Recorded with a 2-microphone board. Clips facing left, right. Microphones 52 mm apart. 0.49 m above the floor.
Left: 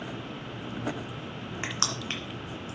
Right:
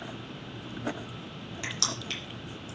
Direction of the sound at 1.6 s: 35° left (ahead or behind).